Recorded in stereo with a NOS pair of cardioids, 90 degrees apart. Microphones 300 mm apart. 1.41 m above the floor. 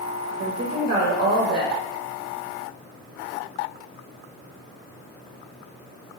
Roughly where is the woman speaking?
Ahead right.